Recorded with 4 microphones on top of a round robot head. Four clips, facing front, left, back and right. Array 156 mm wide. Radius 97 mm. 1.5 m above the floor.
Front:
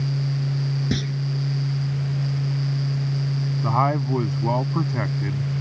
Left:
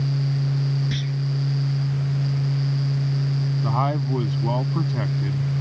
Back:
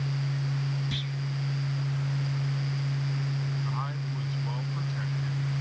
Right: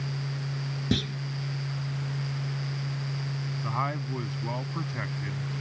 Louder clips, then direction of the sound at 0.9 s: Even, front 10 dB; 40° right.